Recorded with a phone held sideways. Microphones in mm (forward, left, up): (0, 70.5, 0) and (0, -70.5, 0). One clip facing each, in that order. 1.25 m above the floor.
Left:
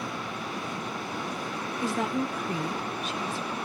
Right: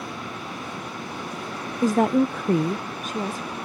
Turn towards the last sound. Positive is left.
turn(degrees=-35)  # may be behind; listen again after turning